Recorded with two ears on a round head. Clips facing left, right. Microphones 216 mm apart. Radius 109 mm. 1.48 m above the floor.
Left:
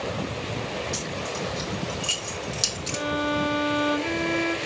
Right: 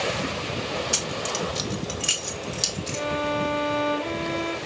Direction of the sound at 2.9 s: 30° left (ahead or behind).